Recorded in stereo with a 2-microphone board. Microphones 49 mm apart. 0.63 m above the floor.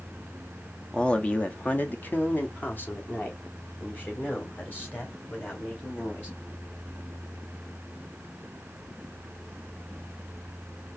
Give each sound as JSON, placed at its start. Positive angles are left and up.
{"t": 0.9, "sound": "a man speaking", "side_deg": 15, "distance_m": 0.8}